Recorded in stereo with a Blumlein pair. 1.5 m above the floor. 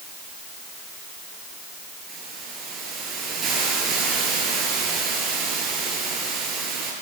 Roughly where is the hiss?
Ahead.